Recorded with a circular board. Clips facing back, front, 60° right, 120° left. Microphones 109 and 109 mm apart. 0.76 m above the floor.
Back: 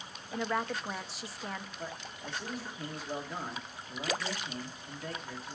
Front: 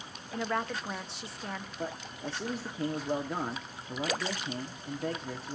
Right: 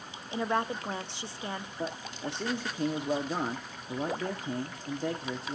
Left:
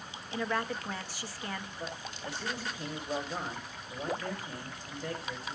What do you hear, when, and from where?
0.3 s a woman speaking: 95° right, 0.5 m
1.8 s a man speaking: 55° right, 1.1 m